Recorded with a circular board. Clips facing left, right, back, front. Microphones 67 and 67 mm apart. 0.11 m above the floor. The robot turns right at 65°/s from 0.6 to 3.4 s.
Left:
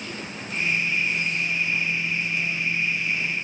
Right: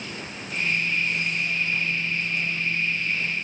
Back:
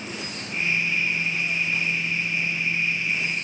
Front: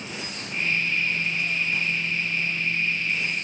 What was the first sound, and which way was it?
Only background noise.